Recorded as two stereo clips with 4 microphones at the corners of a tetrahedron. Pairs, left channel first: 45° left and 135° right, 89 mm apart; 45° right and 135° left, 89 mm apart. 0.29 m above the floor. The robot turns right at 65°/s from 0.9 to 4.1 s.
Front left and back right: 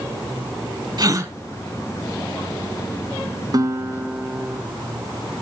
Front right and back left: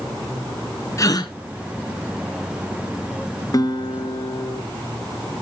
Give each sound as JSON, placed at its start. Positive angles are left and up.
{"t": 1.0, "sound": "a gasp", "azimuth_deg": -95, "distance_m": 1.0}
{"t": 3.5, "sound": "a guitar", "azimuth_deg": -90, "distance_m": 0.8}